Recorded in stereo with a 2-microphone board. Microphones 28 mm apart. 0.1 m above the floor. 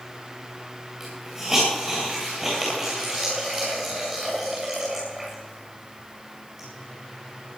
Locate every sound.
1.0 s a hiss: 5° right (ahead or behind), 8.5 m